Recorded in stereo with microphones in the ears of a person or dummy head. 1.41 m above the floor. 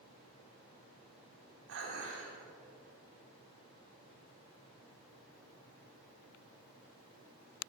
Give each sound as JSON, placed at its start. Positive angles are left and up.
{"t": 1.7, "sound": "dishes clattering", "side_deg": -70, "distance_m": 2.5}